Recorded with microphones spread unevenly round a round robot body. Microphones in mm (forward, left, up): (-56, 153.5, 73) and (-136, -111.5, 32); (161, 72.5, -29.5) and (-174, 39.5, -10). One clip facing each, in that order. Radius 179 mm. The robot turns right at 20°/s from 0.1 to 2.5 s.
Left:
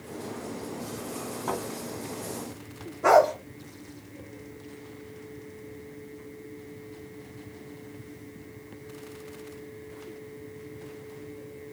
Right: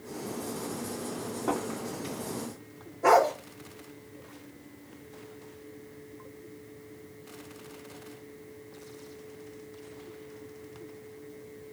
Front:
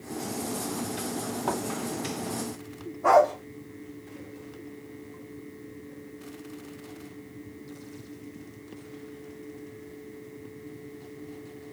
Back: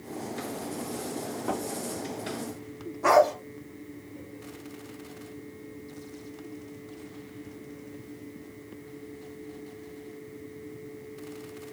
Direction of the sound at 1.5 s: 5° left.